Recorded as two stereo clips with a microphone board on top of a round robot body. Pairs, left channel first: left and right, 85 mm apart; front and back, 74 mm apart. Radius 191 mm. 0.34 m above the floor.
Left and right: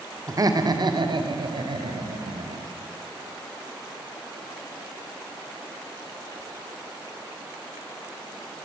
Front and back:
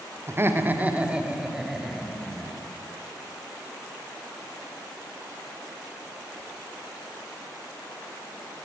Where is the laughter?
130° right, 2.5 m; by 2.6 s 80° right, 4.5 m.